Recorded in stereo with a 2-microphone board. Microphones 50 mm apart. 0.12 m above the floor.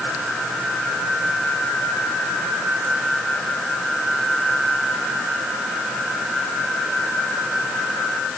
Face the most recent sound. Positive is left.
No sound to turn to.